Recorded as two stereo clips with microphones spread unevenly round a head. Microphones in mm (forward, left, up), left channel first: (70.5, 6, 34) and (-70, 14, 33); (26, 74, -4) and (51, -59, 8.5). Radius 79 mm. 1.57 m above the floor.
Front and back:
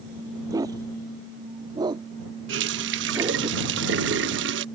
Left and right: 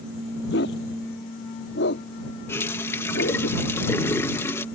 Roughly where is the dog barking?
Left.